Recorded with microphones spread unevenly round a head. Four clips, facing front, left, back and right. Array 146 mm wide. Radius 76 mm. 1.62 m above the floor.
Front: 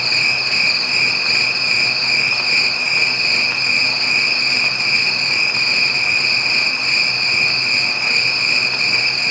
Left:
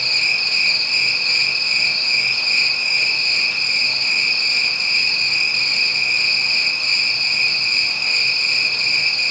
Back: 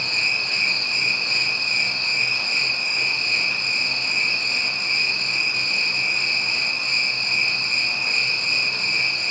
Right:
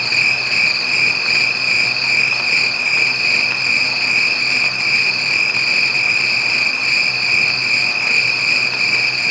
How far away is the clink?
No clink in this recording.